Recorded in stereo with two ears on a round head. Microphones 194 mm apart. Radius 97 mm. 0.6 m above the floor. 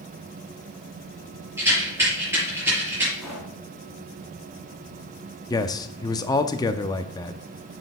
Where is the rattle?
15° right (ahead or behind), 5.5 m.